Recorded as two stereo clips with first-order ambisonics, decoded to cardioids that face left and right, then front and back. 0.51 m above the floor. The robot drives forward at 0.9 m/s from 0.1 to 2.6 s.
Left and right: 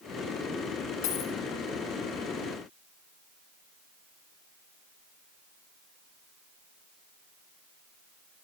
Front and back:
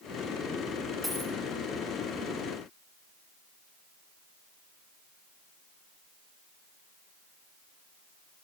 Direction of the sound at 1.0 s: 95° left.